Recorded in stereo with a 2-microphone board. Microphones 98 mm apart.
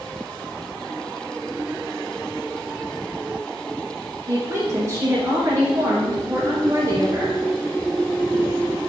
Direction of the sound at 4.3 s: 35° right (ahead or behind).